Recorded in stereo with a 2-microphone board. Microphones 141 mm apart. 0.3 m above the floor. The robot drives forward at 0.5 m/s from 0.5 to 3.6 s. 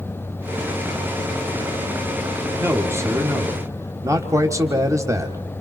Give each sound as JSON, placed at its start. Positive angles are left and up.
{"t": 2.6, "sound": "a man speaking", "side_deg": -20, "distance_m": 1.7}